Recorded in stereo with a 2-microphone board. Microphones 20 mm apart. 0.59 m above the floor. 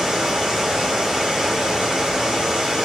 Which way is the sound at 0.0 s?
25° right (ahead or behind).